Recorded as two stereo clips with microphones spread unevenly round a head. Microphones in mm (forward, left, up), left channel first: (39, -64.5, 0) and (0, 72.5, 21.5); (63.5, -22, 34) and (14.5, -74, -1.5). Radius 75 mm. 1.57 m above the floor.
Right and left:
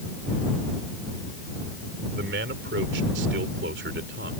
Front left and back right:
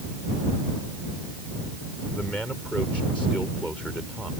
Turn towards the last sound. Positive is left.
turn(degrees=130)